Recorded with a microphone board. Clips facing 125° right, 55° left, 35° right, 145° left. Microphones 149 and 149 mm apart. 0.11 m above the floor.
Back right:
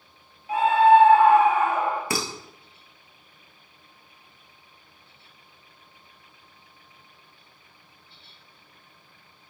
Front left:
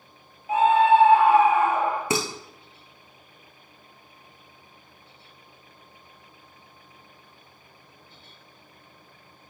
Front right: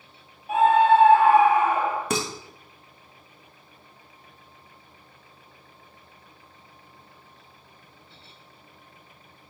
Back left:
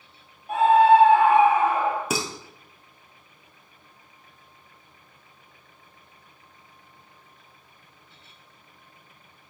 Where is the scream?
50° left, 1.2 m; by 2.0 s 150° left, 1.3 m.